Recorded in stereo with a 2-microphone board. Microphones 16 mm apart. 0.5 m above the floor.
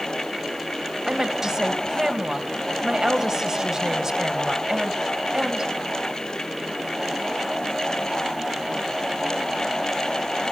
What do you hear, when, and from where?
1.1 s a woman speaking: 30° right (ahead or behind), 3.5 m